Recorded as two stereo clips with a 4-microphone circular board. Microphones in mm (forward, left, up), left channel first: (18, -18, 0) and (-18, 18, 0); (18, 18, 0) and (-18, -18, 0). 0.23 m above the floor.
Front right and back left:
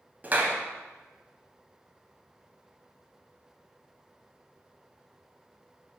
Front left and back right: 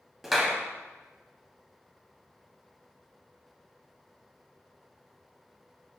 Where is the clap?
140° left, 0.9 m.